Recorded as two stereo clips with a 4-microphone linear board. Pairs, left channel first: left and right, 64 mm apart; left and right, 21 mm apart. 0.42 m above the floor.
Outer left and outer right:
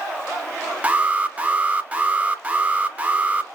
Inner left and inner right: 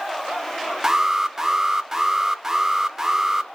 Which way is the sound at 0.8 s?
20° right (ahead or behind).